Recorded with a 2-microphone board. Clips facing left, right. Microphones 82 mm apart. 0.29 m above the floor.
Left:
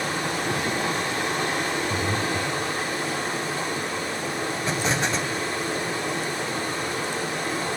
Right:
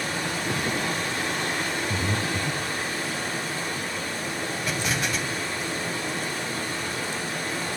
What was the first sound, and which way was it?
Running water, 25° left (ahead or behind).